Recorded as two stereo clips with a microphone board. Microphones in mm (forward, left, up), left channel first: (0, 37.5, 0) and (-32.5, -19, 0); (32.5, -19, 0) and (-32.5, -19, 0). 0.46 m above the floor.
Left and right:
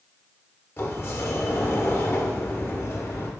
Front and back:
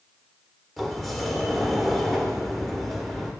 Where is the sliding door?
85° left, 1.1 m.